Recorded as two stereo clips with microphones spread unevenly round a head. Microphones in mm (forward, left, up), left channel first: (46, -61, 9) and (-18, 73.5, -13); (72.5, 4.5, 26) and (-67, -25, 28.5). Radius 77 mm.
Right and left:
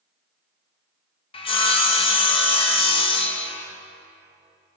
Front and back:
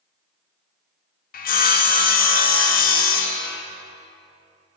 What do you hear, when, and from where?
1.3 s sawing: 10° right, 1.0 m